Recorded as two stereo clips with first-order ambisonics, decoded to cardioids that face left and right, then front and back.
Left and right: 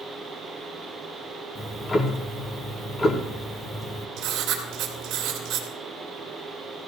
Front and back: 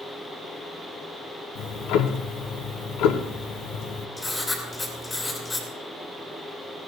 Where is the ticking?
20° left, 0.9 m.